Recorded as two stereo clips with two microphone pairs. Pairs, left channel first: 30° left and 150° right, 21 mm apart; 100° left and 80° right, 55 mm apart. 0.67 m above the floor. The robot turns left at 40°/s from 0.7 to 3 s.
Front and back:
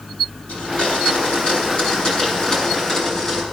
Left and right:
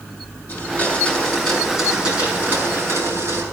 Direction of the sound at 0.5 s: 45° left.